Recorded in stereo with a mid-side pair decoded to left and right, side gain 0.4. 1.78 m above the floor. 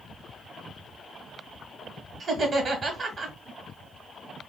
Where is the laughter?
50° right, 1.6 m.